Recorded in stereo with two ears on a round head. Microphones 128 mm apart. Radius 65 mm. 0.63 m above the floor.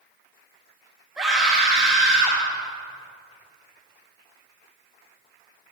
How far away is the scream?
About 4.5 m.